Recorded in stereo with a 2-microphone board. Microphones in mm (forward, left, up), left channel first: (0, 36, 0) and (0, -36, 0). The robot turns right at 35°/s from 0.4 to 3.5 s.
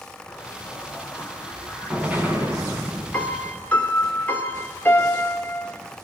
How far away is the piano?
About 2 m.